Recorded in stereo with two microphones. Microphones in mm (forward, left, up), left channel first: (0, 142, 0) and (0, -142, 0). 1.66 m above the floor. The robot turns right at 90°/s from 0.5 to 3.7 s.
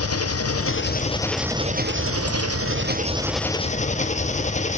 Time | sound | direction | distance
0.0 | an engine running | 100° left | 0.9 m